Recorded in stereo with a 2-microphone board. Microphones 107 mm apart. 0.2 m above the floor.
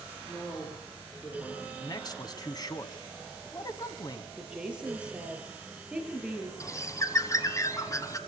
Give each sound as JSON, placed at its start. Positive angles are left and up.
{"t": 0.3, "sound": "a man speaking", "side_deg": 25, "distance_m": 6.0}
{"t": 1.8, "sound": "a man speaking", "side_deg": 40, "distance_m": 1.5}
{"t": 4.4, "sound": "a woman speaking", "side_deg": -10, "distance_m": 5.0}
{"t": 6.6, "sound": "a bird", "side_deg": 30, "distance_m": 1.3}